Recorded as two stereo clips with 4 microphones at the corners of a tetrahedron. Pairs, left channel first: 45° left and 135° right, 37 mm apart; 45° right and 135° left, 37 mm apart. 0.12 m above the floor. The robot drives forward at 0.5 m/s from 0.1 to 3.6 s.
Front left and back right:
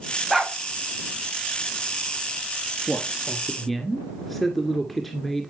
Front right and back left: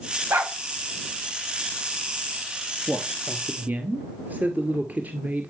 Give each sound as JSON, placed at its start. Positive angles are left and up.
{"t": 0.3, "sound": "a dog barking", "azimuth_deg": 135, "distance_m": 4.0}
{"t": 2.9, "sound": "a man speaking", "azimuth_deg": 115, "distance_m": 1.9}